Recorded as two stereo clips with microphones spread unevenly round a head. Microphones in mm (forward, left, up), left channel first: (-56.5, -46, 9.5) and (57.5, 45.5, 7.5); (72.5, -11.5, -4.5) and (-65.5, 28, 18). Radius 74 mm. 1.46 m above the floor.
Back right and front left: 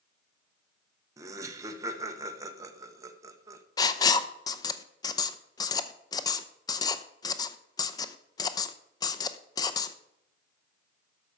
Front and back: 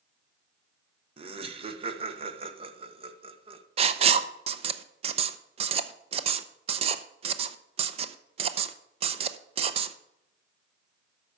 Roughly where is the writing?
Behind.